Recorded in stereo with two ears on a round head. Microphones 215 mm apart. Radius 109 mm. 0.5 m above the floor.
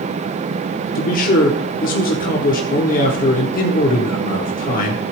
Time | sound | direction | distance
0.9 | a man speaking | 35° left (ahead or behind) | 1.2 m